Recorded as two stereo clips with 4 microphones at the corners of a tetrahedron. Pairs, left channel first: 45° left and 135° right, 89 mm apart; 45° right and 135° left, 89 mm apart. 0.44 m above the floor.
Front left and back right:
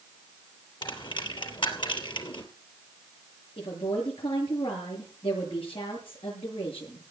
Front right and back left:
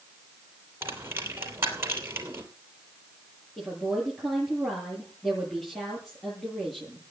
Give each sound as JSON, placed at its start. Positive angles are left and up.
{"t": 0.8, "sound": "a dropped coin", "azimuth_deg": 70, "distance_m": 3.0}
{"t": 3.6, "sound": "a woman speaking", "azimuth_deg": 40, "distance_m": 8.5}